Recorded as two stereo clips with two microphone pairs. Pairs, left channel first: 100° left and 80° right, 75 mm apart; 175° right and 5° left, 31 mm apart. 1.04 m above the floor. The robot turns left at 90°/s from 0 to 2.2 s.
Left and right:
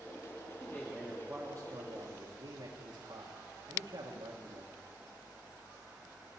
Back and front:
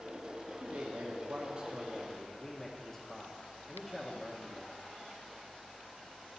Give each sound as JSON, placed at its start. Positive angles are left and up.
{"t": 0.6, "sound": "a man speaking", "azimuth_deg": 60, "distance_m": 1.5}